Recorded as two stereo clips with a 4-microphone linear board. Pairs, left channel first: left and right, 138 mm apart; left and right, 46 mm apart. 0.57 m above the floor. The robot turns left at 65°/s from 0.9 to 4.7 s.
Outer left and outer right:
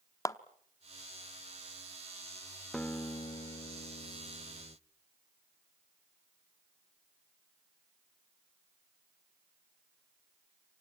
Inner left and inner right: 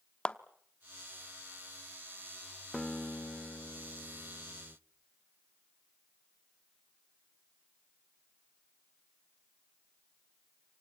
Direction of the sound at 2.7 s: 175° left.